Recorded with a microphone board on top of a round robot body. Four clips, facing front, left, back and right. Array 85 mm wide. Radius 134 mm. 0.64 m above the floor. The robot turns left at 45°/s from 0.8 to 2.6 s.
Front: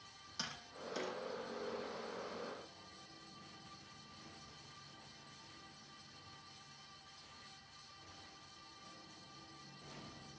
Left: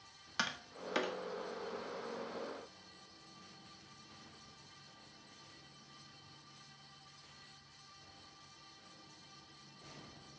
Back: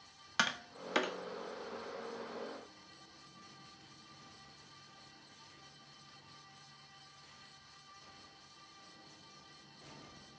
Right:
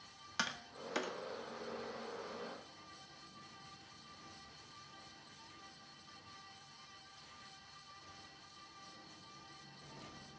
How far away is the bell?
I don't hear a bell.